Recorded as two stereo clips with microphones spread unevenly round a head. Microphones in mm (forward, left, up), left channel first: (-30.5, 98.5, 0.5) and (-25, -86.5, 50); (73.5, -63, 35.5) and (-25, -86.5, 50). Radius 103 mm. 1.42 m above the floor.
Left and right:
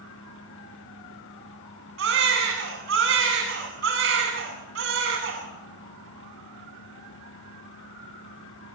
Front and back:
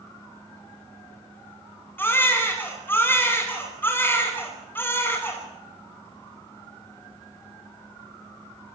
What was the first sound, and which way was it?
A baby crying, 55° right.